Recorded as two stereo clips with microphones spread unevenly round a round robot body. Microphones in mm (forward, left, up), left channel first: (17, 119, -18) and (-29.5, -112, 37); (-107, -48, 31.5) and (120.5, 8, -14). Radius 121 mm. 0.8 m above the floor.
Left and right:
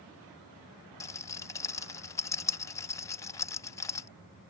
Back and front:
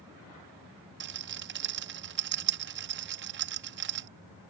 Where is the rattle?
10° left.